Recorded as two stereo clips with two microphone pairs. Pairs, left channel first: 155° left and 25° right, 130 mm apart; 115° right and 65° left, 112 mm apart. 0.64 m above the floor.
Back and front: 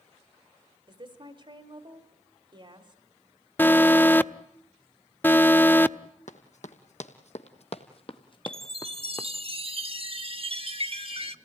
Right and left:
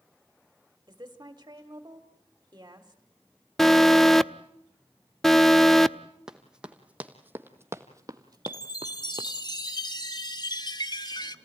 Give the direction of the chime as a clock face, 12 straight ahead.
2 o'clock.